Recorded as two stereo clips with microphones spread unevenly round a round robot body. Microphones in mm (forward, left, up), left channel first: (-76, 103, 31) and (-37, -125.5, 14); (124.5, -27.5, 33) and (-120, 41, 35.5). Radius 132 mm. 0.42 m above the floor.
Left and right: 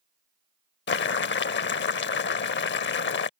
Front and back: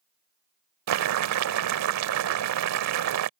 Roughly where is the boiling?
Behind left.